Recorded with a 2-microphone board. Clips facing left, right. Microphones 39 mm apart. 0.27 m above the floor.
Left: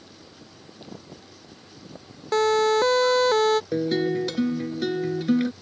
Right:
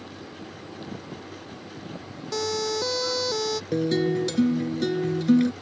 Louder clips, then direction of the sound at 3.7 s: Even; 10° left (ahead or behind).